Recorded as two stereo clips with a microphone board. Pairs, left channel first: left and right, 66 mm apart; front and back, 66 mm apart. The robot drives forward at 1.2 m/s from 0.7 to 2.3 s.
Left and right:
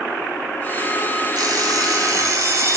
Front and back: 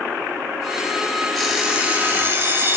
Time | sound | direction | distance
1.4 | an alarm clock | 85° right | 1.5 m